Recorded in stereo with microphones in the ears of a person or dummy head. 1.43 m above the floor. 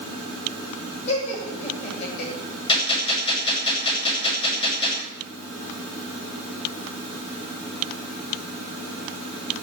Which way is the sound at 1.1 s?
40° left (ahead or behind).